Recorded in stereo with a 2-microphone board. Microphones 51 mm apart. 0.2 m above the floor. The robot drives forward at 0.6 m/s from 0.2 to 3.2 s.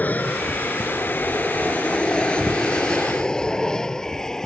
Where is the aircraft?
35° left (ahead or behind); by 4.5 s 10° left (ahead or behind).